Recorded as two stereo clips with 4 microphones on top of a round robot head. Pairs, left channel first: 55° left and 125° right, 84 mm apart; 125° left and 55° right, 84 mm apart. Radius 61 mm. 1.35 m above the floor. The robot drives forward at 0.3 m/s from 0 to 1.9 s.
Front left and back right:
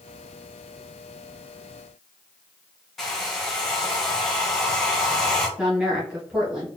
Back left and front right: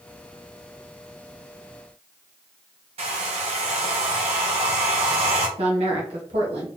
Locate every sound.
3.0 s a hair dryer: 35° right, 0.6 m
5.6 s a woman speaking: 45° right, 0.9 m